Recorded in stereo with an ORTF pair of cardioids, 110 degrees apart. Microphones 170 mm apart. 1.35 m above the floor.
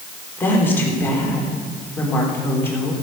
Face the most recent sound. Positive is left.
turn(degrees=10)